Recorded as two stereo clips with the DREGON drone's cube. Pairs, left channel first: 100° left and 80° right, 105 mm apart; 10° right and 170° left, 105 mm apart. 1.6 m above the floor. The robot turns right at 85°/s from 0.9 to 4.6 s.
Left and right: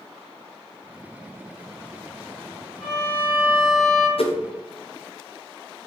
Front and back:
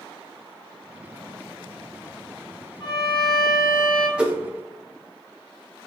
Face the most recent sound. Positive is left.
turn(degrees=125)